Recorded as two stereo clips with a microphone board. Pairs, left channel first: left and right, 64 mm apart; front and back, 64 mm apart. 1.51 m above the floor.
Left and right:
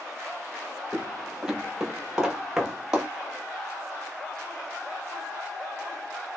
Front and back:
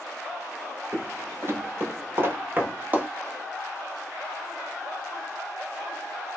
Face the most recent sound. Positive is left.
turn(degrees=-160)